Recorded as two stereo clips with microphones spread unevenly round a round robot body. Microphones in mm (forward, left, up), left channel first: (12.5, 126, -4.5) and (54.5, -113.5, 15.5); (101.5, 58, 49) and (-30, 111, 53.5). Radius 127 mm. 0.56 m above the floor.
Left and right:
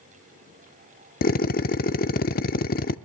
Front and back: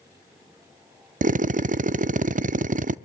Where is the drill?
145° left, 0.6 m.